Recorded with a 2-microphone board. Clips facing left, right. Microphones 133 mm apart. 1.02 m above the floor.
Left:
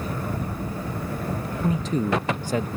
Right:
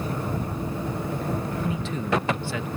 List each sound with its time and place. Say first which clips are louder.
1.6 s a man speaking: left 4 dB; 40° left (ahead or behind)